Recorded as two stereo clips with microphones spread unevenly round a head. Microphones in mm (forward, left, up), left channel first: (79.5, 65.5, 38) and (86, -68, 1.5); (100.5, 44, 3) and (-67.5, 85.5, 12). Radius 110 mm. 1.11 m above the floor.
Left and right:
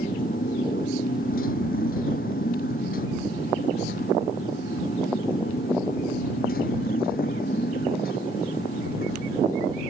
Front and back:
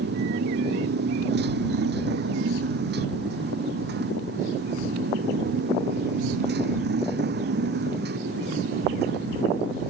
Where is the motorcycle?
145° left.